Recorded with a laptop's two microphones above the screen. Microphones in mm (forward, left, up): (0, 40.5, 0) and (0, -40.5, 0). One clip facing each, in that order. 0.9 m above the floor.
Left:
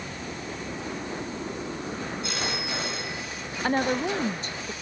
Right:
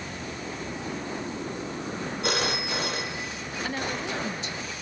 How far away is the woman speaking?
About 0.6 m.